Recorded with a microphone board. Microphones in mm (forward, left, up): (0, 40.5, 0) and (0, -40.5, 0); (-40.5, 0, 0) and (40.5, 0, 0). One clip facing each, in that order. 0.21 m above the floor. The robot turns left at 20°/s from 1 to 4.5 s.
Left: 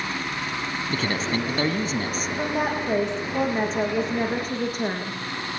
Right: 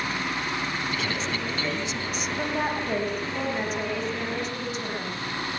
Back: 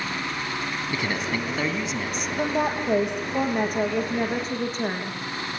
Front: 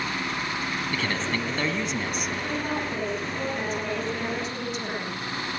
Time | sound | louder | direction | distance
0.9 | a man speaking | left 4 dB, back 2 dB | 110° left | 2 m
2.4 | a woman speaking | left 2 dB, back 8 dB | 170° left | 9.5 m